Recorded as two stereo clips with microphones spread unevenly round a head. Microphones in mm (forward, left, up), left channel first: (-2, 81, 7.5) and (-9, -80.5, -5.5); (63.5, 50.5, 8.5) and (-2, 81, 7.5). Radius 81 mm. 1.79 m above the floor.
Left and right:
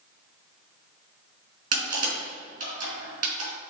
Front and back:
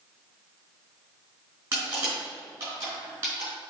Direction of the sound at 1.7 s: 135° right.